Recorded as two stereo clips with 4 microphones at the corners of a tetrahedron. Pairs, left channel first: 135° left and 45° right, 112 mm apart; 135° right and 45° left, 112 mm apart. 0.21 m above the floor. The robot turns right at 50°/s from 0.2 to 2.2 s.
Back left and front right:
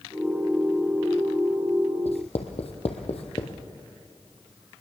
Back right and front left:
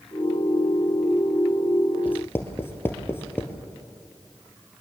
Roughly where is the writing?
Behind left.